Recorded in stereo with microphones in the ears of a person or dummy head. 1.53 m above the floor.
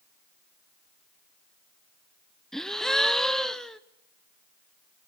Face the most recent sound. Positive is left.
turn(degrees=5)  # may be behind; listen again after turning